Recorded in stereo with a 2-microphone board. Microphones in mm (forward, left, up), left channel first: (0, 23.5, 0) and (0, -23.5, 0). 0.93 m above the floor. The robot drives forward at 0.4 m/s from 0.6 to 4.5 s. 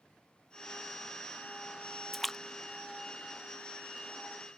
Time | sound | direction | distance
2.1 | a splash | 5° left (ahead or behind) | ?